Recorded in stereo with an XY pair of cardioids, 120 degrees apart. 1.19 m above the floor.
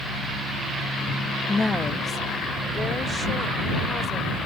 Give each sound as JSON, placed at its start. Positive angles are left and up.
{"t": 1.5, "sound": "a woman speaking", "azimuth_deg": 20}